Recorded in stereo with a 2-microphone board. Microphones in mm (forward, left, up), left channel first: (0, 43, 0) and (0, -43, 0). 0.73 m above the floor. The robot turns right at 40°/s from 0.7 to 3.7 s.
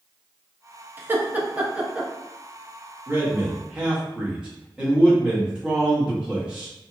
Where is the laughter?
25° right (ahead or behind), 0.6 m; by 2.1 s 5° right (ahead or behind), 0.6 m.